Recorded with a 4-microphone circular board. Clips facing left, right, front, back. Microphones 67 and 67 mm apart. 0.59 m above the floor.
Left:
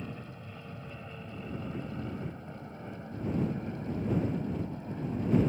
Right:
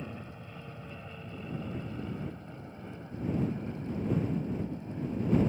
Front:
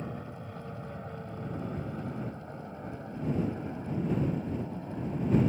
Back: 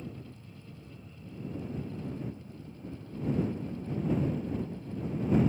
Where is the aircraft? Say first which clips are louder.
Even, front 5 dB; 5° right; by 5.5 s 25° left.